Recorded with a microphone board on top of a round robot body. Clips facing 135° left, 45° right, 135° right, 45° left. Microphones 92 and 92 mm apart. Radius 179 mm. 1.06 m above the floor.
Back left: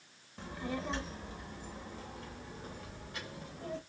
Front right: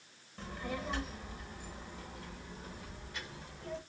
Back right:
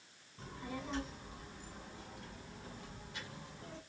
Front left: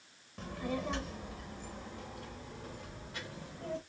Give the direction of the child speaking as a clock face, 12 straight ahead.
10 o'clock.